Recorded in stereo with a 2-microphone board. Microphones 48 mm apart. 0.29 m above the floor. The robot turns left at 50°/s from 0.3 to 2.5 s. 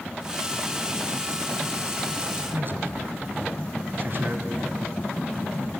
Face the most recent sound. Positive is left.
turn(degrees=-50)  # may be behind; listen again after turning